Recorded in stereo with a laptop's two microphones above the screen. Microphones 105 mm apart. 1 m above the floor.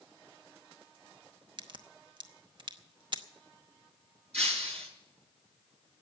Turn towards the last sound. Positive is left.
turn(degrees=-85)